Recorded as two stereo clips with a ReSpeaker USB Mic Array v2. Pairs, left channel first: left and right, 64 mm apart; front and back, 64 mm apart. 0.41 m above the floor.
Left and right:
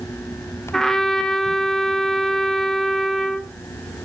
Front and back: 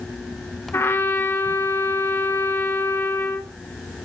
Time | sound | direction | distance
0.7 | a trumpet | 10° left | 0.9 m